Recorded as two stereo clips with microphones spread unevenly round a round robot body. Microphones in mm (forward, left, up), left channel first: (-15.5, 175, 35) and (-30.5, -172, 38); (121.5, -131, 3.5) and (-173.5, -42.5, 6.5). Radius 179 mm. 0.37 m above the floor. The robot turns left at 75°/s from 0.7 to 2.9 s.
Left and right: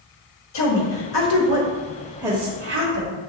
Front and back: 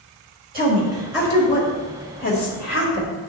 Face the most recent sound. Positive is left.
turn(degrees=-60)